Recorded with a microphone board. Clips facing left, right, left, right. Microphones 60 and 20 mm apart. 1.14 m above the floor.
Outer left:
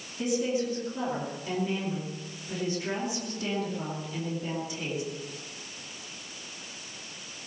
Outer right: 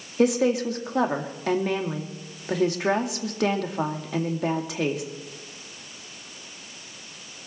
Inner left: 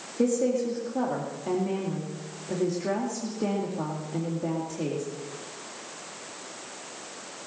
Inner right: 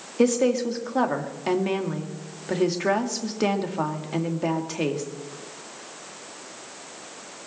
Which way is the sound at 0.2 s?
80° right.